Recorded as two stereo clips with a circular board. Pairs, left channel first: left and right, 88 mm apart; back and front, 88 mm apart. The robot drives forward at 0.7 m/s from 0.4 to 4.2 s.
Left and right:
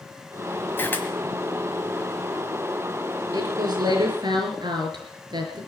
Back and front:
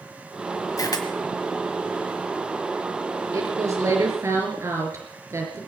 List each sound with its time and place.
0.8 s a camera shutter: 150° left, 1.5 m; by 1.1 s 155° left, 1.6 m
3.3 s a woman speaking: 50° right, 4.5 m; by 5.6 s 55° right, 4 m